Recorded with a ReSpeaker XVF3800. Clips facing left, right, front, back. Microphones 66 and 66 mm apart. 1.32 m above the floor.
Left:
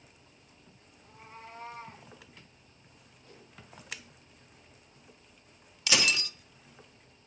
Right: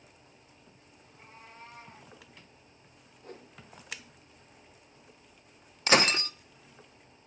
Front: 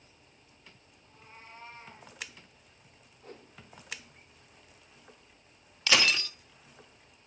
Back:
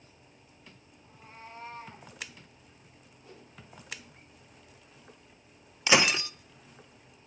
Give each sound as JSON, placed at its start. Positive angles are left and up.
{"t": 1.0, "sound": "a cat meowing", "azimuth_deg": 95, "distance_m": 7.0}
{"t": 3.2, "sound": "a whoosh", "azimuth_deg": -45, "distance_m": 3.0}
{"t": 5.9, "sound": "breaking glass", "azimuth_deg": -115, "distance_m": 0.9}